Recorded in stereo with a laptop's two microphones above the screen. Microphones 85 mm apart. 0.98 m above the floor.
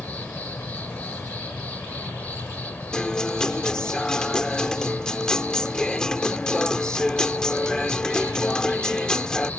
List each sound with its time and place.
0.0 s an insect: 20° left (ahead or behind)
2.9 s a guitar: 10° left (ahead or behind)